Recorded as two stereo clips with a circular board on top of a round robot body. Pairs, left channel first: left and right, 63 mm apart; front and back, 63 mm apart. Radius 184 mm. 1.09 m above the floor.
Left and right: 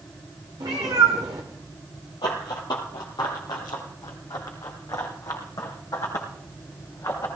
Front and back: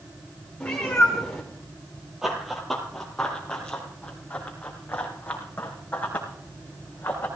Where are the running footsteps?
95° left, 1.3 m; by 7.3 s 55° left, 3.5 m.